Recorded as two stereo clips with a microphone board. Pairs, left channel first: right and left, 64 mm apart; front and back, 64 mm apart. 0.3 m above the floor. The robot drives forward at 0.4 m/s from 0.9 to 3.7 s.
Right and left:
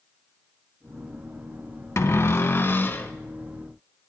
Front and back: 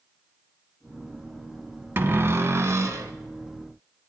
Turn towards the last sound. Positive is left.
turn(degrees=-150)